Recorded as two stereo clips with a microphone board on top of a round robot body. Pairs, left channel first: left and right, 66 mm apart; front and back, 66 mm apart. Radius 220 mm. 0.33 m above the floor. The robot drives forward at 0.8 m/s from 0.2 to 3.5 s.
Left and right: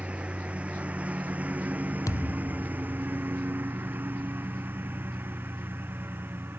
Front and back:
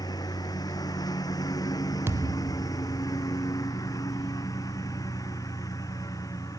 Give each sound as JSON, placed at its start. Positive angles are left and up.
{"t": 0.0, "sound": "a lawn mower", "azimuth_deg": -20}
{"t": 2.1, "sound": "a thud", "azimuth_deg": 125}